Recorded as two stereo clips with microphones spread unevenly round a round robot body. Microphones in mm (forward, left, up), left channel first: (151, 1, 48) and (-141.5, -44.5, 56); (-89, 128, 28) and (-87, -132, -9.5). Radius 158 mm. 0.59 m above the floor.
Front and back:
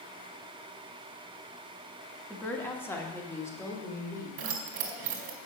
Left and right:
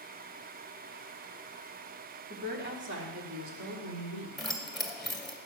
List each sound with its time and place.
2.3 s a woman speaking: 70° right, 1.5 m
4.4 s keys jangling: 175° right, 1.9 m